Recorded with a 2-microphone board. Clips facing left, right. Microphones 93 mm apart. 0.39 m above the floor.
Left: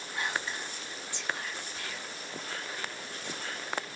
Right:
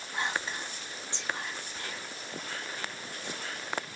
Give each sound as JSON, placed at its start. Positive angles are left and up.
{"t": 0.1, "sound": "whispering", "side_deg": -25, "distance_m": 0.9}